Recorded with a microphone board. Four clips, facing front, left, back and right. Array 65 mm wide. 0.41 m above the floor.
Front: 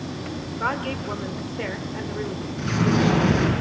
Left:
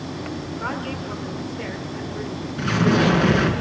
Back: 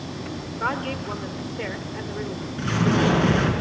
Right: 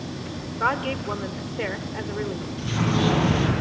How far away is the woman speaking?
About 1.5 m.